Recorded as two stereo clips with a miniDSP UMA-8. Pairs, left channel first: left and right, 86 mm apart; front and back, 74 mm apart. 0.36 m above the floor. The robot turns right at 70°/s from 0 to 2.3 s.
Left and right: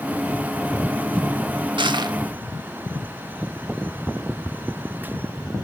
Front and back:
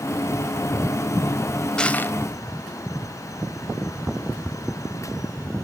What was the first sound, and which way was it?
Crushing, 80° right.